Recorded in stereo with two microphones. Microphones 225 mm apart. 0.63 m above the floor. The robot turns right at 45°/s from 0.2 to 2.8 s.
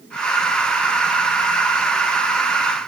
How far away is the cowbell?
No cowbell in this recording.